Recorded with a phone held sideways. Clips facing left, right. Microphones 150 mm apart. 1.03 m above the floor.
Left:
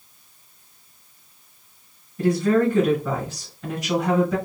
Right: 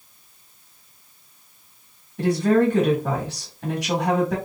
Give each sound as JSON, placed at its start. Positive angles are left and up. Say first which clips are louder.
{"t": 2.2, "sound": "a woman speaking", "louder": "right 1 dB", "side_deg": -80, "distance_m": 1.4}